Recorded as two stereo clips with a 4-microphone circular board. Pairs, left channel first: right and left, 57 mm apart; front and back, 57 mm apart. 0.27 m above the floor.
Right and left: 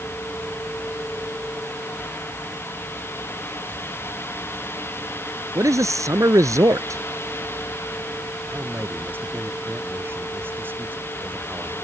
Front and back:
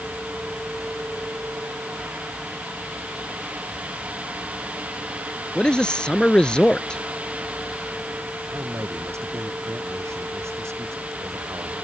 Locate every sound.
5.5 s a man speaking: 75° left
8.5 s a man speaking: 140° left